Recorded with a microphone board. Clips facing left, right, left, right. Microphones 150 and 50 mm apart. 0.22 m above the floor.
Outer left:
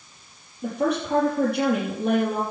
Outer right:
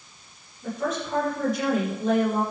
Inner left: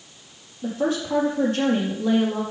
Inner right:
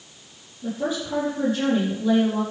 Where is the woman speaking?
65° left (ahead or behind), 5 m.